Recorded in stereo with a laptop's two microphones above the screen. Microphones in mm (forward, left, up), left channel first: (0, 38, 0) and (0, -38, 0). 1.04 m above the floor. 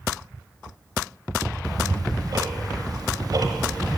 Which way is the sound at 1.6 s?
55° right (ahead or behind).